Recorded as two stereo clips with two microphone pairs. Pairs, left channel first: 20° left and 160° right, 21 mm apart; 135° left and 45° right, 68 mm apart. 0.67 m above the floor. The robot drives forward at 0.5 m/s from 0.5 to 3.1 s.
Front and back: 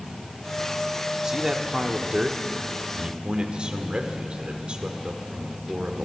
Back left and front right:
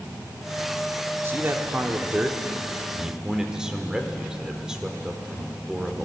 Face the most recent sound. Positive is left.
turn(degrees=-130)